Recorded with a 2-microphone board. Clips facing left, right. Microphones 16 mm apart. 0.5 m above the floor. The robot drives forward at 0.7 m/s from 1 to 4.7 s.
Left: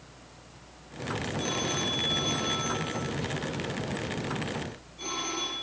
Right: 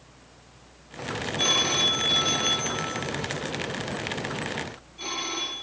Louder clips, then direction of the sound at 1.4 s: Right 10 dB; 60° right (ahead or behind).